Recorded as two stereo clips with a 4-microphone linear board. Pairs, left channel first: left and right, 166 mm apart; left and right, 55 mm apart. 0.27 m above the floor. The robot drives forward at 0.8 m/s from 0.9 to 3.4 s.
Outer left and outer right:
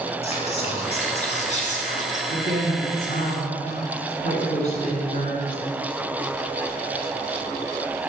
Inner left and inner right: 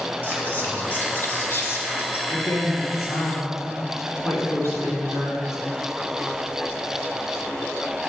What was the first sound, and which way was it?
Whispering, 40° left (ahead or behind).